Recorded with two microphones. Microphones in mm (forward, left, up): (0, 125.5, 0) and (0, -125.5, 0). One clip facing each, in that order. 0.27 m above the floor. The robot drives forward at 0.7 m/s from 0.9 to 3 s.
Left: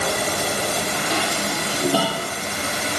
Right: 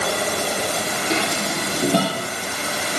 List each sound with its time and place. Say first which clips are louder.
1.1 s dishes clattering: right 4 dB; 25° right (ahead or behind), 3.5 m; by 2.3 s 20° right (ahead or behind), 4 m